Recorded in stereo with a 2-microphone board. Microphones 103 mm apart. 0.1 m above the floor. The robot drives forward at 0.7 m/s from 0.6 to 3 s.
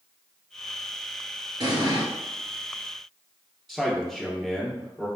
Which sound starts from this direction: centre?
A man speaking, at 3.7 s.